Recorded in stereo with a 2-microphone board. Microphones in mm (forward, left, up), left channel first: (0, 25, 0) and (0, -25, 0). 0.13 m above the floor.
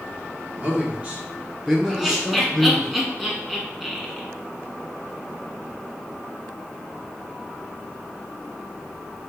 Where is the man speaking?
30° right (ahead or behind), 1.9 m; by 2.9 s 10° left (ahead or behind), 1.4 m.